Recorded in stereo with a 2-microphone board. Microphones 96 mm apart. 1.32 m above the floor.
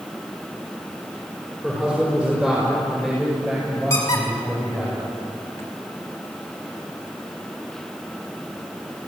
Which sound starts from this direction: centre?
A man speaking, at 1.6 s.